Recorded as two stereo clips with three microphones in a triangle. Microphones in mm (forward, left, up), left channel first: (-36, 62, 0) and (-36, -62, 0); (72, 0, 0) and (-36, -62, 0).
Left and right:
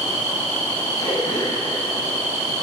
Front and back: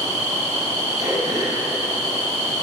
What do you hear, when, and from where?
1.0 s throat clearing: 150° left, 7.5 m